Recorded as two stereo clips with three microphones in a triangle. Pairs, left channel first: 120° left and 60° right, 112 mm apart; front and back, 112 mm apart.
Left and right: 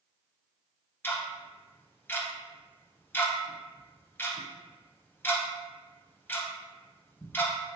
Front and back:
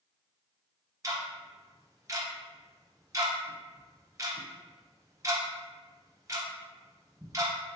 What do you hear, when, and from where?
1.0 s ticking: 175° left, 0.7 m